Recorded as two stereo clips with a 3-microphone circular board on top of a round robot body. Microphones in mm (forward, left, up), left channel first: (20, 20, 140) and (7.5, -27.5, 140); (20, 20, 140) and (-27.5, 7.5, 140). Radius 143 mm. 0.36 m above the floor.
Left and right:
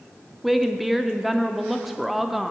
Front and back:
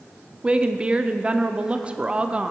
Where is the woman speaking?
175° left, 0.8 m.